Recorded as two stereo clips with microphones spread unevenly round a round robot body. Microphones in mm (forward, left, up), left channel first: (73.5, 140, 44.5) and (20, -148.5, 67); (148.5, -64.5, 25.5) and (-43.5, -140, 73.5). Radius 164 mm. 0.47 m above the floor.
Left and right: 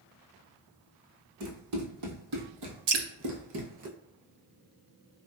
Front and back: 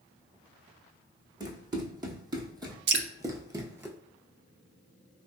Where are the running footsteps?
90° right, 1.7 m; by 3.9 s 110° right, 0.5 m.